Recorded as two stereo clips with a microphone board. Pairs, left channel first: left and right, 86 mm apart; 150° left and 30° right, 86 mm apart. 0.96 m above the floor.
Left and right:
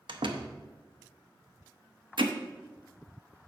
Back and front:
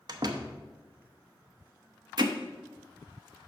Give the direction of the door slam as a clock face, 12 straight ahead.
2 o'clock.